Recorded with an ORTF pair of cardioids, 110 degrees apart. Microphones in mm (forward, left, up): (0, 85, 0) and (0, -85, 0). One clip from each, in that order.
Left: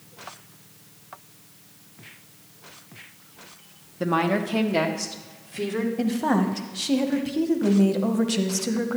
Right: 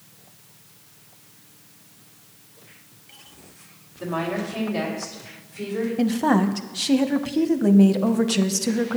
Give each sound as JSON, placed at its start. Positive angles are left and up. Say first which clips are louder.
{"t": 4.0, "sound": "a woman speaking", "louder": "left 4 dB", "azimuth_deg": 65, "distance_m": 1.0}
{"t": 6.0, "sound": "a woman speaking", "louder": "right 4 dB", "azimuth_deg": -15, "distance_m": 0.8}